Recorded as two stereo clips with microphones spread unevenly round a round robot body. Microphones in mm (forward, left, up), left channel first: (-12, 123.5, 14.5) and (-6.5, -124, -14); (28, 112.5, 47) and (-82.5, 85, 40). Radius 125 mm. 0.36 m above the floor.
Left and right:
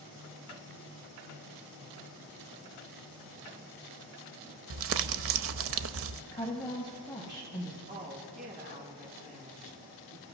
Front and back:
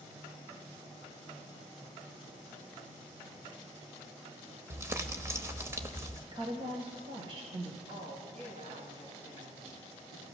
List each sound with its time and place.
4.7 s crumpling: 100° right, 0.6 m
6.3 s a woman speaking: 165° left, 2.5 m
7.9 s a woman speaking: 145° right, 4.5 m